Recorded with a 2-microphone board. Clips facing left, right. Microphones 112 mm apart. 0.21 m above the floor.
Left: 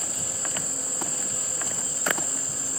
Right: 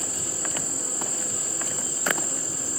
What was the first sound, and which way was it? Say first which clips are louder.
An insect: right 2 dB; 70° right (ahead or behind).